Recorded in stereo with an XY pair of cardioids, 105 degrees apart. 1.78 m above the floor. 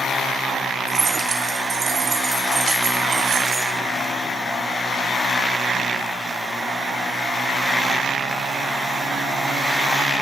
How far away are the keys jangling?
About 4 m.